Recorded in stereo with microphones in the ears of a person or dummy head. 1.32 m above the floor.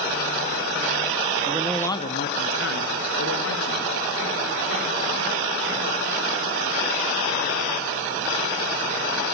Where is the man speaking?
20° right (ahead or behind), 1.2 m; by 5.9 s 80° left, 6.5 m.